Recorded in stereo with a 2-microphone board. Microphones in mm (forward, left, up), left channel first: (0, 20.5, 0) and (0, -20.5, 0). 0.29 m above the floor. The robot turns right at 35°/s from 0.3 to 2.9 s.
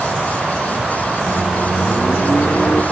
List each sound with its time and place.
1.3 s a microwave: 25° left, 4.5 m; by 2.8 s 80° left, 4.5 m